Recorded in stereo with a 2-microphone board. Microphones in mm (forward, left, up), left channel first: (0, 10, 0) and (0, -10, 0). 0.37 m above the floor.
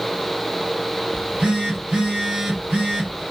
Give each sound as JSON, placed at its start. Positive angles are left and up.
{"t": 1.1, "sound": "a phone buzzing", "side_deg": -75, "distance_m": 1.0}